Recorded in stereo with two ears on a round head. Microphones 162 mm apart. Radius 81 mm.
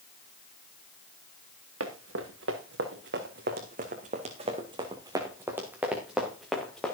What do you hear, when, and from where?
1.8 s running footsteps: 75° right (ahead or behind), 3 m; by 7.0 s 5° left (ahead or behind), 3.5 m